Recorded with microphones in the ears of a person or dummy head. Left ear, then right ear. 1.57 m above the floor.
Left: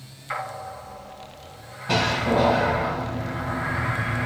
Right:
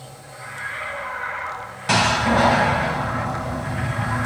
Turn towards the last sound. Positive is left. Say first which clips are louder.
# right 4 dB
turn(degrees=-50)  # may be behind; listen again after turning